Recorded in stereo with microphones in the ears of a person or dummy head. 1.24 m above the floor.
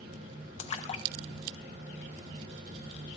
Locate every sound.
0.6 s a splash: 35° left (ahead or behind), 0.7 m